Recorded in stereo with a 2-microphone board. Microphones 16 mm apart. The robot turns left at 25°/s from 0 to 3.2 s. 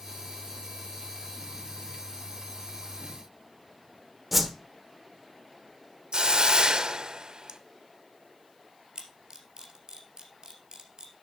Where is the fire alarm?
I don't hear a fire alarm.